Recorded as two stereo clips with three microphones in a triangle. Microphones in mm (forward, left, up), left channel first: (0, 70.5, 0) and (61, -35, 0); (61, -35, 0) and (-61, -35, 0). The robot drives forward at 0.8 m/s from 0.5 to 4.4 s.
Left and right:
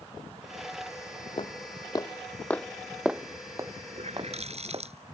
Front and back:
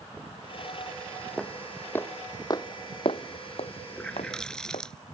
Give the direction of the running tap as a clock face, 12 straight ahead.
3 o'clock.